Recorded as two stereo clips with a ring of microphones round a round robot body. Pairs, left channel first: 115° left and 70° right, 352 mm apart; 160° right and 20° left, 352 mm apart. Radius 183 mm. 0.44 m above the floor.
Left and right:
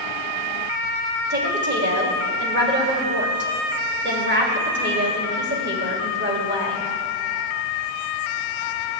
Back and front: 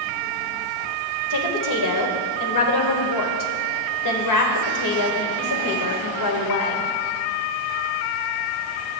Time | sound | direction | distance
1.3 | a woman speaking | 125° right | 1.8 m